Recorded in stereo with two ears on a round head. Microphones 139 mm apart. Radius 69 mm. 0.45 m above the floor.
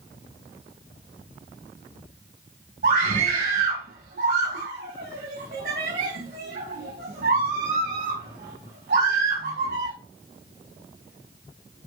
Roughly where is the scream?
Right.